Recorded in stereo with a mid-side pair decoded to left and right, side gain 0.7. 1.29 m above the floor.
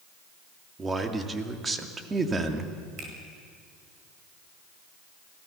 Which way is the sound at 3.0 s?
50° right.